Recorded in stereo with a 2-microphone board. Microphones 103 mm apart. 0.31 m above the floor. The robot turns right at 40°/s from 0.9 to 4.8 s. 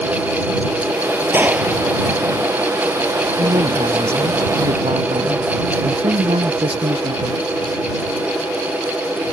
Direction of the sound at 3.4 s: 120° right.